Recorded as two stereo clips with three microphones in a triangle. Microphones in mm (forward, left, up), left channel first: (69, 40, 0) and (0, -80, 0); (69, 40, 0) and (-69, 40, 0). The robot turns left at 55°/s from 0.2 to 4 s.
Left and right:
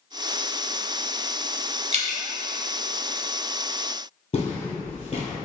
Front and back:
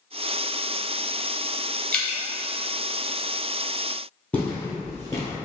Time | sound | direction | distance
1.9 | dripping | 80° right | 0.5 m
4.3 | footsteps | 75° left | 1.7 m